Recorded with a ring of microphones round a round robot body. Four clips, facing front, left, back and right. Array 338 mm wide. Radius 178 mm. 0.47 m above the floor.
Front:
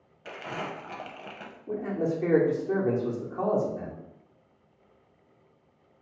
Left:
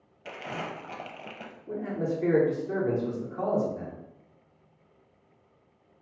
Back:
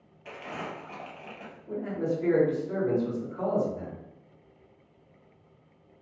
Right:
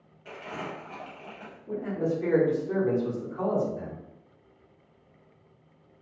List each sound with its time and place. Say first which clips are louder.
0.2 s crumpling: left 1 dB, front 2 dB; 65° left, 0.5 m
1.7 s a man speaking: right 2 dB, front 1 dB; 15° left, 1.2 m